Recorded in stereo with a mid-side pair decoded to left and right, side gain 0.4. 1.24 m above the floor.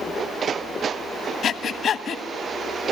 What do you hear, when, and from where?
1.4 s breathing: 60° left, 1.4 m